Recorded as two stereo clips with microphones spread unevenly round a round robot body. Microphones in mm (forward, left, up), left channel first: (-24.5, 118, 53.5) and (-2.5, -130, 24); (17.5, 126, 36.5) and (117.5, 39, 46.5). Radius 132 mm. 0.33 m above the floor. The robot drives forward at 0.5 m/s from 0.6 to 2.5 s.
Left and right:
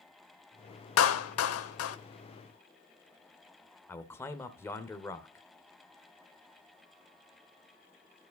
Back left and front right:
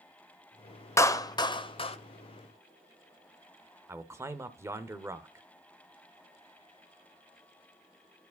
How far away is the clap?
About 0.9 m.